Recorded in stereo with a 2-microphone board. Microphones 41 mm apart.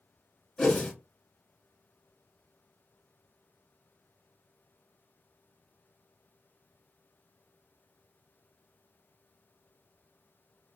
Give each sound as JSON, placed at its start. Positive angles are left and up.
{"t": 0.6, "sound": "a whoosh", "side_deg": 10, "distance_m": 1.4}